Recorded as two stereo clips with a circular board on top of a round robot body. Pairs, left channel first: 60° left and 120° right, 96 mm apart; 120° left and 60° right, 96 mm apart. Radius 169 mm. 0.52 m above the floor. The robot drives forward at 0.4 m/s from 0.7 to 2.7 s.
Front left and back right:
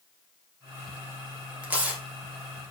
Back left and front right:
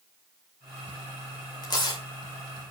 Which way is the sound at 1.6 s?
160° left.